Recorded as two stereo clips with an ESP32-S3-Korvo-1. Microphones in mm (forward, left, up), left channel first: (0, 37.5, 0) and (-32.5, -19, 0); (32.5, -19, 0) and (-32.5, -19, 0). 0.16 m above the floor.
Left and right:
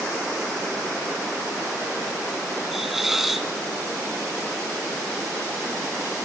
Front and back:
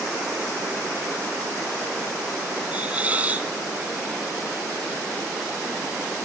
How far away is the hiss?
About 0.9 m.